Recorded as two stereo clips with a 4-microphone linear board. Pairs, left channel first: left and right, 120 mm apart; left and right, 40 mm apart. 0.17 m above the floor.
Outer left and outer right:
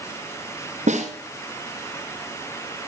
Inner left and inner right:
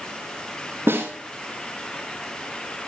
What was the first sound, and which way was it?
A snare drum, 85° right.